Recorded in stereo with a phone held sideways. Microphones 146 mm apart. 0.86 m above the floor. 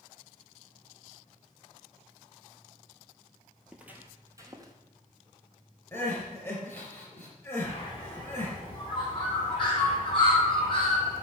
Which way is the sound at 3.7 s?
5° right (ahead or behind).